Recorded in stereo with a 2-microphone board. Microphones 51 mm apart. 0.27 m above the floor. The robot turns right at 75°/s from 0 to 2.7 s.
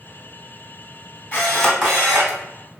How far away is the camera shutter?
About 2.5 m.